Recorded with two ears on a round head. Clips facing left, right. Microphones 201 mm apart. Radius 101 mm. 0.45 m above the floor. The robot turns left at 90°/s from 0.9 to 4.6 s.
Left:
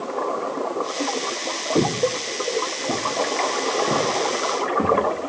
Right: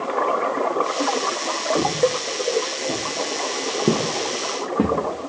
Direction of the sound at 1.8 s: 30° left (ahead or behind).